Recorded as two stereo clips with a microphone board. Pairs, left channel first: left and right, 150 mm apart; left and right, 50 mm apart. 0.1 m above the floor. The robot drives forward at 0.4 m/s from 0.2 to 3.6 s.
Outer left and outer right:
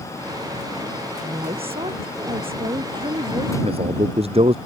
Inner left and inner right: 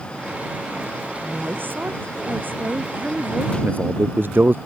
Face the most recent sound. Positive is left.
turn(degrees=-45)  # may be behind; listen again after turning